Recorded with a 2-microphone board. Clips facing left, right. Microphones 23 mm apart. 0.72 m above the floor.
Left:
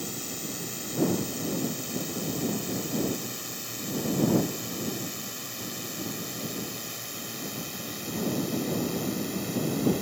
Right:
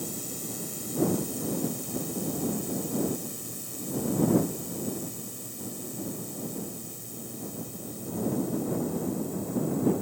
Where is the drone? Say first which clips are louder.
Left 1 dB; 30° left (ahead or behind); by 10.0 s 65° left (ahead or behind).